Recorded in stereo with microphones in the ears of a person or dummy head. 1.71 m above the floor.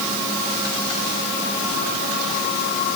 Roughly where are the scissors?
No scissors in this recording.